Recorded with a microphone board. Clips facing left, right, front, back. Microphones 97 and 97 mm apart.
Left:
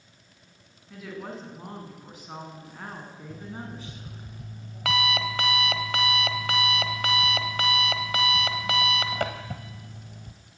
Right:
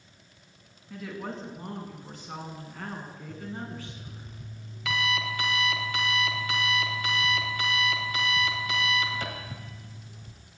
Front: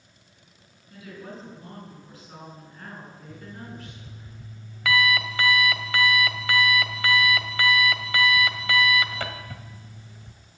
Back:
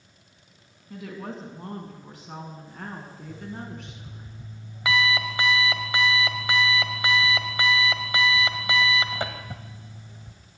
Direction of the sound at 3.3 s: 110° left.